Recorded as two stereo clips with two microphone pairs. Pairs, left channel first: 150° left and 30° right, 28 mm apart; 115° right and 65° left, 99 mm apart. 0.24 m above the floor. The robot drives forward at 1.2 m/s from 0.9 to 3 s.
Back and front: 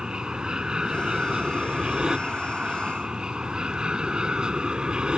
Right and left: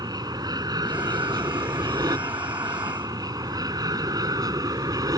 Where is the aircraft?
30° left; by 5.2 s 25° left.